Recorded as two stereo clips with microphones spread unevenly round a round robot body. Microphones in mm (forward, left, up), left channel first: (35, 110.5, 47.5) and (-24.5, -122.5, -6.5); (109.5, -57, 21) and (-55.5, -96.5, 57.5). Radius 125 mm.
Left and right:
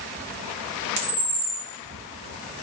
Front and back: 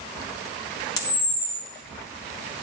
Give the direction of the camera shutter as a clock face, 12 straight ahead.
2 o'clock.